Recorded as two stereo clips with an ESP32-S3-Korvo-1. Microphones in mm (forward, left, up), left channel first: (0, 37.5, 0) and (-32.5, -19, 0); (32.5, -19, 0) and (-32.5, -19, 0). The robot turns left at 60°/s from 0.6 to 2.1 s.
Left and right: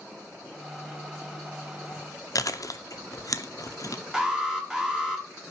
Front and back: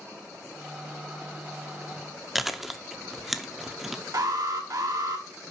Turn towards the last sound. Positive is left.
turn(degrees=160)